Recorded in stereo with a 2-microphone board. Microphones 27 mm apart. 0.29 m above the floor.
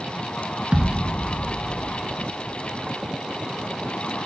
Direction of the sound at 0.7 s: 40° right (ahead or behind).